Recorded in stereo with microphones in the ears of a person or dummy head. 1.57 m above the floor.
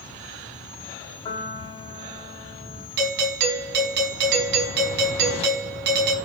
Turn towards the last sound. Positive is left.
turn(degrees=-65)  # may be behind; listen again after turning